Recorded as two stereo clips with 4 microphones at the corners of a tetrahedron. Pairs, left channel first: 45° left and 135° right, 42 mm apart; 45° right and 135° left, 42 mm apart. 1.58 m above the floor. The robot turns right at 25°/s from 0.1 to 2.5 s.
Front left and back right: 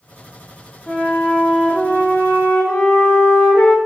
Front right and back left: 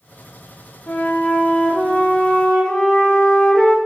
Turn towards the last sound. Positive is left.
turn(degrees=25)